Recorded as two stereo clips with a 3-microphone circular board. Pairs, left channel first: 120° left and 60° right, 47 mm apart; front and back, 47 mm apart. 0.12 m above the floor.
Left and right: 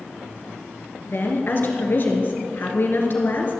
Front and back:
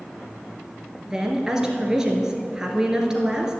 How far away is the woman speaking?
About 1.9 m.